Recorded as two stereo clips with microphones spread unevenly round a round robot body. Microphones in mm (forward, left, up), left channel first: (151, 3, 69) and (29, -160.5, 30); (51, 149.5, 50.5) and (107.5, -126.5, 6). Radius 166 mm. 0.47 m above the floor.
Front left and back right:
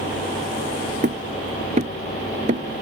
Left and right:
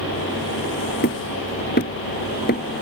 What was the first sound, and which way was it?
Hammering, 165° left.